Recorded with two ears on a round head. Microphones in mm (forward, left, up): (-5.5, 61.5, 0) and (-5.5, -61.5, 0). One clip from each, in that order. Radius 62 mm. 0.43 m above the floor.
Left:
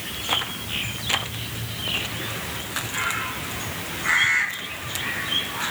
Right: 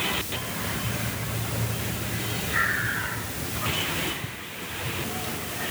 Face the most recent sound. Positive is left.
No sound to turn to.